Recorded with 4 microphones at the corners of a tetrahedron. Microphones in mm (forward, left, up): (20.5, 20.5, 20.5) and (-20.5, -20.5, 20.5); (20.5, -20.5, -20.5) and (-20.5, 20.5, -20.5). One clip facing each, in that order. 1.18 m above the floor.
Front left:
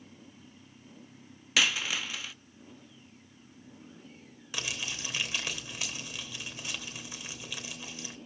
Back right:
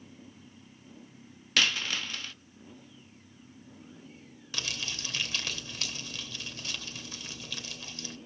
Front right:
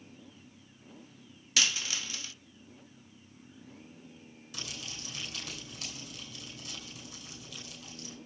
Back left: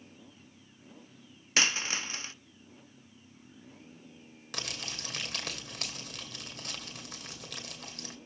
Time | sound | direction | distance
1.6 | a dropped coin | 125° left | 0.6 m
4.5 | crumpling | 120° left | 2.5 m